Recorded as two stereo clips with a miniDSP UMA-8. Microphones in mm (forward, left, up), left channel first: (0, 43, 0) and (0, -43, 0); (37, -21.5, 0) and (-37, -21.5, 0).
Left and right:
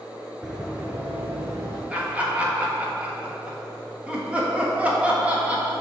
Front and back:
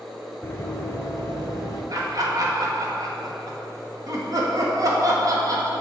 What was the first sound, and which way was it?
Running footsteps, 10° right.